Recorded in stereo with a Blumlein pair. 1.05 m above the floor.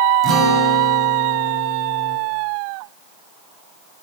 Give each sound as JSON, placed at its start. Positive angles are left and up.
{"t": 0.2, "sound": "a guitar", "azimuth_deg": -30, "distance_m": 8.5}